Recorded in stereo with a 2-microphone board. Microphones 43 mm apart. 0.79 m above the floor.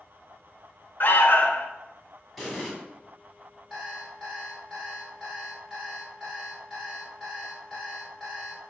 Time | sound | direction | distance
1.0 | an alarm | 45° left (ahead or behind) | 0.5 m
2.4 | an explosion | 5° left (ahead or behind) | 1.2 m
3.7 | an alarm clock | 10° right (ahead or behind) | 2.5 m